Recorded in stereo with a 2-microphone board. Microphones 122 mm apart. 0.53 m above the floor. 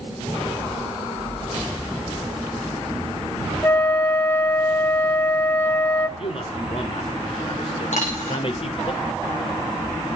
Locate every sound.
3.6 s a flute: 15° left (ahead or behind), 0.7 m
6.2 s a man speaking: 50° left (ahead or behind), 1.8 m
7.9 s a dropped coin: 70° left (ahead or behind), 8 m